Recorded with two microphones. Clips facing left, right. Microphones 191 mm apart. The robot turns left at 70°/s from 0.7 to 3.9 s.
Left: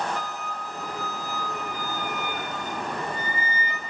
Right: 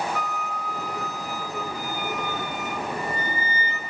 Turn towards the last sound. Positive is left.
turn(degrees=60)